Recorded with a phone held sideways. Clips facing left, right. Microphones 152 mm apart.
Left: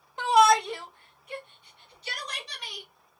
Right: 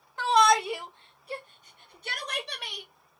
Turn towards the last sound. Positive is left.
turn(degrees=-60)  # may be behind; listen again after turning